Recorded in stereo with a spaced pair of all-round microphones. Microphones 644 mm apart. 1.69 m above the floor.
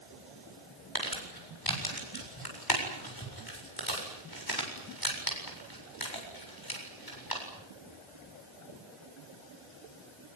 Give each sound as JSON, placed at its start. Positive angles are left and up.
{"t": 0.9, "sound": "crumpling", "side_deg": 35, "distance_m": 7.5}